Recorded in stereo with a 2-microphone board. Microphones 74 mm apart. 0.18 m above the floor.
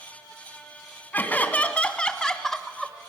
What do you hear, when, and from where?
1.1 s laughter: 20° left (ahead or behind), 2.0 m; by 3.1 s 5° right (ahead or behind), 1.6 m